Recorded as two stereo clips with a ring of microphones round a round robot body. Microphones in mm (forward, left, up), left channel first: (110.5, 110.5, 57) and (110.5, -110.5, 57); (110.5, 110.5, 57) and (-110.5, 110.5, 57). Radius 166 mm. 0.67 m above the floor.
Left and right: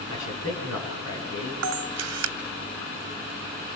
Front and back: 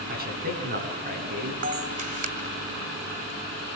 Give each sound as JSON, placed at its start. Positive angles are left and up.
{"t": 0.1, "sound": "a man speaking", "azimuth_deg": 135, "distance_m": 7.0}
{"t": 1.6, "sound": "a camera shutter", "azimuth_deg": -115, "distance_m": 1.4}